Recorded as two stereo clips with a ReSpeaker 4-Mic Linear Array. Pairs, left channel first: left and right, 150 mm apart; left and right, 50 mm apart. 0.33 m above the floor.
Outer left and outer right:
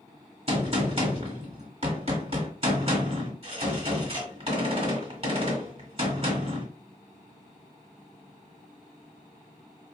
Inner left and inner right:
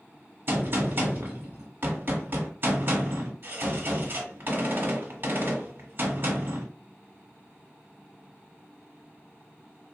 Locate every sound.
0.5 s a gunshot: 40° right (ahead or behind), 1.4 m